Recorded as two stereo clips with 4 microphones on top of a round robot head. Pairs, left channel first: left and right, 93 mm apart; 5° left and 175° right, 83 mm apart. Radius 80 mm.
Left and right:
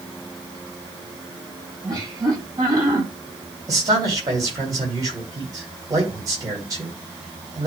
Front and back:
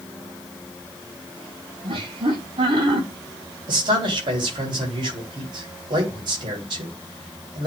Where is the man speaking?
145° right, 3.5 m.